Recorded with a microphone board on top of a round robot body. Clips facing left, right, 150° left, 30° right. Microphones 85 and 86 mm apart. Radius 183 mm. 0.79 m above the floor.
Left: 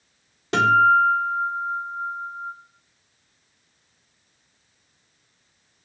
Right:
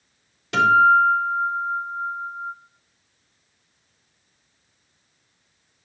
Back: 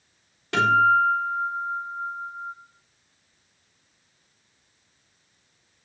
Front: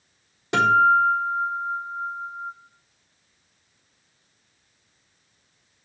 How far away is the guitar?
About 3.5 m.